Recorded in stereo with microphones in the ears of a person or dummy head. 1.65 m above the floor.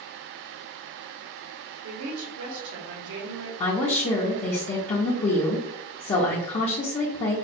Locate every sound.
1.8 s a woman speaking: 65° right (ahead or behind), 1.2 m
3.6 s a woman speaking: 30° left (ahead or behind), 0.6 m